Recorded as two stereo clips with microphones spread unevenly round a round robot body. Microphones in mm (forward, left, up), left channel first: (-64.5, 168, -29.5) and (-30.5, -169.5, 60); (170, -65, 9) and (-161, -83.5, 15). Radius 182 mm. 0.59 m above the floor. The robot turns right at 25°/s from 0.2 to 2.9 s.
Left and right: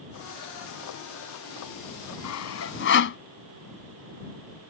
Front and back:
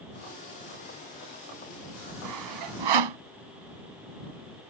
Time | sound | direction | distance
2.2 | sawing | 135° left | ?